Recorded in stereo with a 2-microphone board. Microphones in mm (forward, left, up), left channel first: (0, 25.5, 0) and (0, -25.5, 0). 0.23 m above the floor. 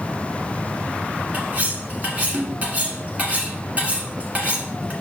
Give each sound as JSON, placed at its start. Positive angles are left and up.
{"t": 1.3, "sound": "cutlery clinking", "side_deg": -30, "distance_m": 1.4}